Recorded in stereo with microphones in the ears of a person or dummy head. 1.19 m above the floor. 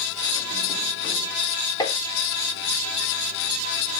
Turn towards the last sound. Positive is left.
turn(degrees=20)  # may be behind; listen again after turning